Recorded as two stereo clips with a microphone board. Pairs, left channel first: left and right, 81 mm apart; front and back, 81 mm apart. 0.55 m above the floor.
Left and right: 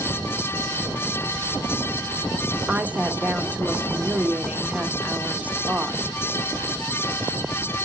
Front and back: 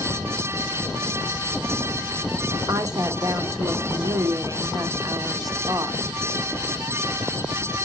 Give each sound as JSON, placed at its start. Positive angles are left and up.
{"t": 2.7, "sound": "a woman speaking", "azimuth_deg": -155, "distance_m": 1.1}